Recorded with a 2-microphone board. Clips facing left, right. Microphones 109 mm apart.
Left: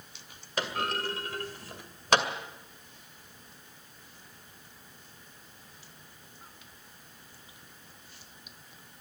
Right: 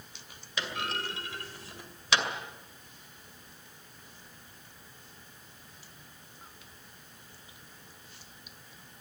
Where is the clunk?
50° left (ahead or behind), 2 m.